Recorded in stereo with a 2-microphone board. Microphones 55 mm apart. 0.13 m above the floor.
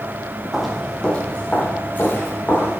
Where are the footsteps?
5° right (ahead or behind), 1.3 m; by 2.8 s 40° left (ahead or behind), 3 m.